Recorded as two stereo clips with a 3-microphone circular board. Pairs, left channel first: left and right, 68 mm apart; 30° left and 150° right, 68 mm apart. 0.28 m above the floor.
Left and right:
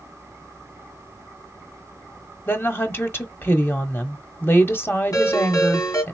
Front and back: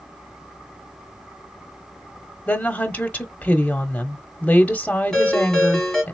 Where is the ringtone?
115° left, 3 m.